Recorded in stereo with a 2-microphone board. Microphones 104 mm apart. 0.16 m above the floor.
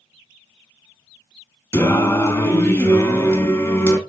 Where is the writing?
I don't hear writing.